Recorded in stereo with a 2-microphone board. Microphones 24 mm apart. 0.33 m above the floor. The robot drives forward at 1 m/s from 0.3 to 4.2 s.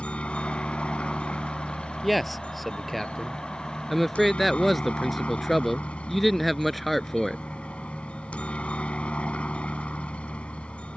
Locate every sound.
0.0 s a helicopter: 60° left (ahead or behind)
2.0 s a man speaking: 5° left (ahead or behind)